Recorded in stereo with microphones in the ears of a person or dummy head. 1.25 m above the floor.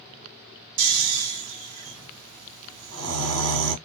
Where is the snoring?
75° right (ahead or behind), 1.2 m.